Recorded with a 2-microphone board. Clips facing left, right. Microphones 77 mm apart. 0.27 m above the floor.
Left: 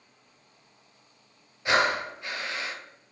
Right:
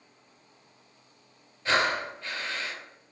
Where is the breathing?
10° left (ahead or behind), 0.8 m.